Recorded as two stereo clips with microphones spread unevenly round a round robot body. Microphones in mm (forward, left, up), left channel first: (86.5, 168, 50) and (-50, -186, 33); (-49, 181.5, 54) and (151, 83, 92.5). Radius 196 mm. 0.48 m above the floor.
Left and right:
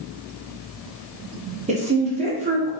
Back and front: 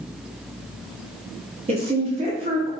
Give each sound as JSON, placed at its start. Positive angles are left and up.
{"t": 1.7, "sound": "a woman speaking", "azimuth_deg": -75, "distance_m": 0.8}